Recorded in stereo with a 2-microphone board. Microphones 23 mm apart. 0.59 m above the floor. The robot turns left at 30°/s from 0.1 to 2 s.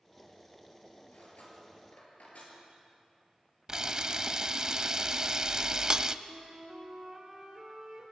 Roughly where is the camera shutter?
Right.